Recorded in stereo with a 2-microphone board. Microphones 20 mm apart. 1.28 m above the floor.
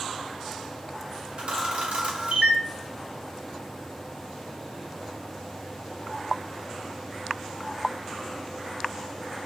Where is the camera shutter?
65° right (ahead or behind), 0.9 m.